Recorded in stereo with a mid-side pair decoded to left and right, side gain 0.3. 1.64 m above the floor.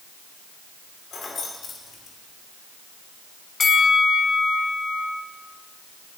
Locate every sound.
1.1 s keys jangling: 65° left, 3 m
3.6 s a bell: 65° left, 1.6 m